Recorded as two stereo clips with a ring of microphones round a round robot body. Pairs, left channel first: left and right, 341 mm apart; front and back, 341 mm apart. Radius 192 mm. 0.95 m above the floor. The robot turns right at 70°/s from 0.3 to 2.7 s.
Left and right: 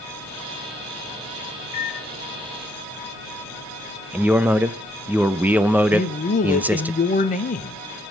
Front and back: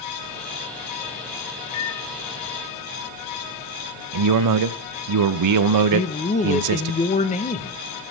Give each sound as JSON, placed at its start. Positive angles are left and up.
{"t": 1.7, "sound": "a microwave", "azimuth_deg": 45, "distance_m": 0.8}
{"t": 4.1, "sound": "a man speaking", "azimuth_deg": -175, "distance_m": 0.9}
{"t": 5.9, "sound": "a man speaking", "azimuth_deg": 50, "distance_m": 0.9}